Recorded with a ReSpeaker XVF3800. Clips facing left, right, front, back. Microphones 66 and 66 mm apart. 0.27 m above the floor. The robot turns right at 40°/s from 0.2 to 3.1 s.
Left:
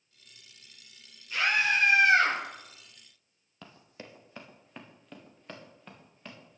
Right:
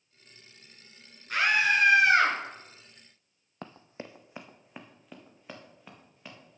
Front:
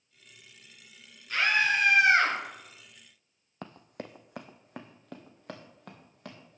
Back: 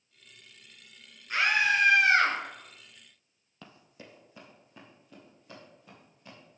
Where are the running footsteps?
45° right, 0.6 m; by 6.6 s 5° right, 3 m.